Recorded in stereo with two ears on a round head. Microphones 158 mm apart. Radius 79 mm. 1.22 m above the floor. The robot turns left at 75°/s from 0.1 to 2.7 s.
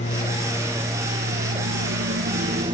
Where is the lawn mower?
45° left; by 2.7 s 150° right.